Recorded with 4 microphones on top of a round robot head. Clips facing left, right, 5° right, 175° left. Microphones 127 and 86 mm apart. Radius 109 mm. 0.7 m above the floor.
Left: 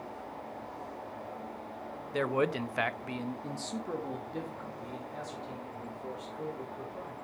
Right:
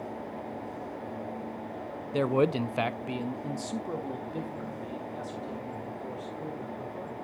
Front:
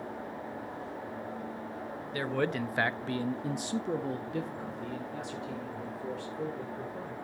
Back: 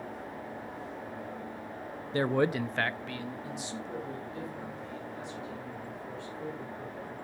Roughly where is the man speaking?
Behind right.